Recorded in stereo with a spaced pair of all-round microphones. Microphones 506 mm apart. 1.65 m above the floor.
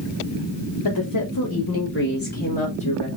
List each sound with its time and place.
0.8 s a woman speaking: 45° left (ahead or behind), 0.9 m; by 3.1 s 10° left (ahead or behind), 1.9 m